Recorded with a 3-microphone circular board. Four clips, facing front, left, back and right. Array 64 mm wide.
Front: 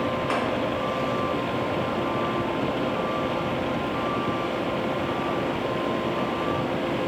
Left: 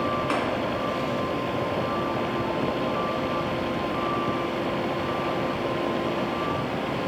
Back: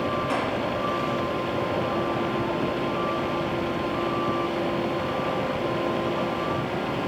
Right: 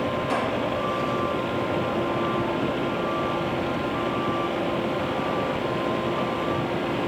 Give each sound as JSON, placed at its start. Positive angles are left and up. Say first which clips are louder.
{"t": 0.3, "sound": "tapping", "louder": "right 2 dB, front 2 dB", "azimuth_deg": 60, "distance_m": 2.5}